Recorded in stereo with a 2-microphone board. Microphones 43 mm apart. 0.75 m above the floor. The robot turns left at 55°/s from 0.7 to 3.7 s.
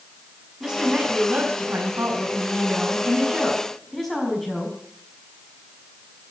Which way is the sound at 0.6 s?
25° right.